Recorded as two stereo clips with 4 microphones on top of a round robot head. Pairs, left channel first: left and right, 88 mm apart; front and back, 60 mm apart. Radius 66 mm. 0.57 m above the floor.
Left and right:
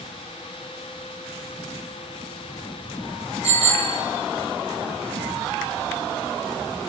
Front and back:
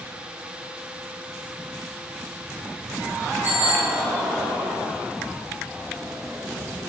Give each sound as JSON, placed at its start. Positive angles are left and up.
{"t": 3.4, "sound": "a bicycle bell", "azimuth_deg": -110, "distance_m": 7.0}